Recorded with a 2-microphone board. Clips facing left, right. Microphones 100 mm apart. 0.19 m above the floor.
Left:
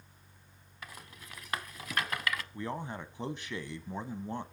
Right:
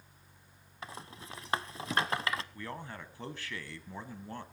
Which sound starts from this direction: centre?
A man speaking, at 2.5 s.